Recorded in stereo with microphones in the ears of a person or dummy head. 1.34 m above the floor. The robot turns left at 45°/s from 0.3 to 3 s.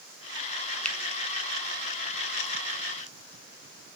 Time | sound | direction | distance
0.8 | a finger snap | 10° left (ahead or behind) | 0.8 m